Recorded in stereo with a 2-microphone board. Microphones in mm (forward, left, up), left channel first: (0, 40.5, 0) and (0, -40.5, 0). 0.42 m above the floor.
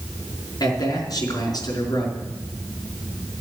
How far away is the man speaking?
About 4 m.